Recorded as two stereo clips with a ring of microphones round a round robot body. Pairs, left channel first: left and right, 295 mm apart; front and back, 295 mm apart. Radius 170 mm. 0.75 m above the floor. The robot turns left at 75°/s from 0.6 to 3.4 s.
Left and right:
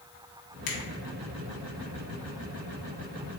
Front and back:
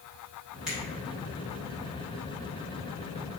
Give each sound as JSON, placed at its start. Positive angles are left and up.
{"t": 0.7, "sound": "a finger snap", "azimuth_deg": 95, "distance_m": 1.4}